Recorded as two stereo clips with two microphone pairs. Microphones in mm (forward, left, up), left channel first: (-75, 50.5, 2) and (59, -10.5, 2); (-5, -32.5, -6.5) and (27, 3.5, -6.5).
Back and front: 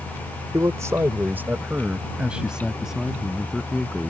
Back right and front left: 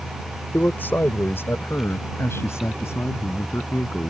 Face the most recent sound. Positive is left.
turn(degrees=-115)